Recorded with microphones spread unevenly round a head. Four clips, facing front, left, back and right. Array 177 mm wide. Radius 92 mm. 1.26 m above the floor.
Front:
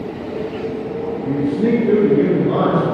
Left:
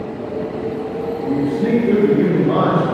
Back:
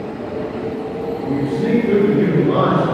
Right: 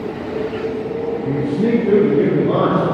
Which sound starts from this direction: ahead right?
A man speaking, at 1.2 s.